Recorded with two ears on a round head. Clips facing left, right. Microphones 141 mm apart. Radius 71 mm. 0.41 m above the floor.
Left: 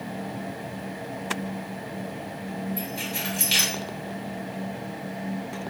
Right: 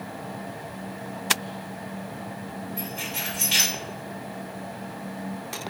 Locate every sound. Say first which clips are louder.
2.8 s keys jangling: left 2 dB; 40° left (ahead or behind), 1.4 m